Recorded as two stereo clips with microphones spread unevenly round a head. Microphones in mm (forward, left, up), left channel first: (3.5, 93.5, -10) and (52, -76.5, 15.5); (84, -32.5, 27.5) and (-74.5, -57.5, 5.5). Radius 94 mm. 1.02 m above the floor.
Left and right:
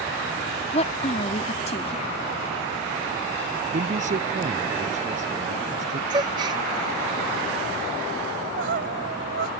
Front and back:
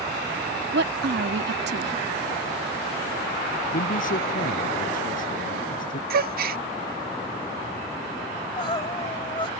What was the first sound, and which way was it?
A woman speaking, 165° left.